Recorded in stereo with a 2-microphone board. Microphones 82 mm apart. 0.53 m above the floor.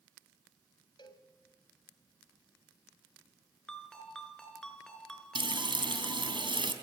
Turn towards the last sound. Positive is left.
turn(degrees=-65)  # may be behind; listen again after turning